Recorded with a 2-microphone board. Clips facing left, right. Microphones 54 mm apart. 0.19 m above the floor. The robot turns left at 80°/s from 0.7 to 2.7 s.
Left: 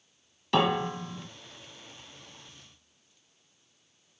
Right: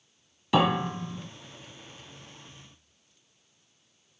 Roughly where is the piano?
Centre.